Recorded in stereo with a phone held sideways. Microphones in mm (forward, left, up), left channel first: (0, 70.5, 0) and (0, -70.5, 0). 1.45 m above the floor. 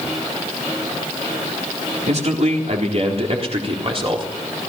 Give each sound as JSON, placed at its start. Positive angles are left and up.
{"t": 2.1, "sound": "a man speaking", "side_deg": -55, "distance_m": 4.0}